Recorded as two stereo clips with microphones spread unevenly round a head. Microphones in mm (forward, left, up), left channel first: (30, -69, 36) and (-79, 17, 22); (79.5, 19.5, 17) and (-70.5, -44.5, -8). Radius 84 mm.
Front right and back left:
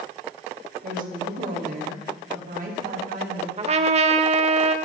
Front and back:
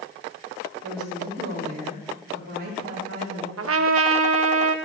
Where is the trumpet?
170° right, 0.9 m.